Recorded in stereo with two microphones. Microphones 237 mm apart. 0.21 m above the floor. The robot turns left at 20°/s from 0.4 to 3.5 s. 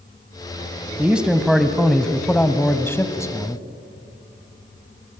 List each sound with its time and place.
1.0 s a man speaking: 5° right (ahead or behind), 1.3 m; by 3.6 s 15° left (ahead or behind), 1.3 m